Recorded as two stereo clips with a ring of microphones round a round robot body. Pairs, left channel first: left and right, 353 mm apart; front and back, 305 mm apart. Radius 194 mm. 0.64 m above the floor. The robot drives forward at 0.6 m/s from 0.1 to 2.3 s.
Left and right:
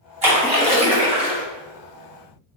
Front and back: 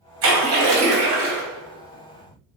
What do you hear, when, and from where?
0.2 s a splash: 155° right, 1.3 m; by 1.4 s 165° right, 1.9 m